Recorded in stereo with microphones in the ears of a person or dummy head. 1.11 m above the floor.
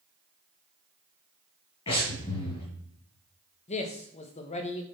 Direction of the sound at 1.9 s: 35° left (ahead or behind).